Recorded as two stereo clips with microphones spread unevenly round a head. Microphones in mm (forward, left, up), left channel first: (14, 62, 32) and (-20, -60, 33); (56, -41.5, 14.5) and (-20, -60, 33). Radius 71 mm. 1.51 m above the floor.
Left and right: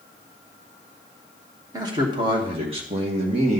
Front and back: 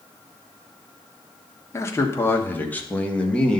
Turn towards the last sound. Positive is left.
turn(degrees=-65)